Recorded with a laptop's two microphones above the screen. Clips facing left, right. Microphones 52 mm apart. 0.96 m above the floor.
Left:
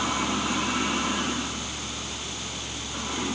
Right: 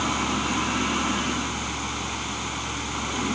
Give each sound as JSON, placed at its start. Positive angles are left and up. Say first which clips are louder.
{"t": 0.0, "sound": "a fan", "louder": "right 1 dB", "side_deg": -40}